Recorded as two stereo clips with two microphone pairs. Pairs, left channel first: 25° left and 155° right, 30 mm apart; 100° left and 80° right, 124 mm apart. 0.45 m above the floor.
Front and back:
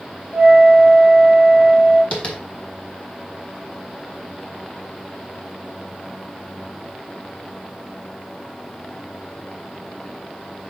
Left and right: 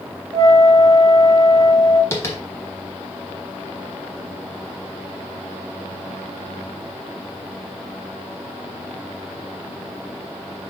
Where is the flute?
125° right, 1.0 m.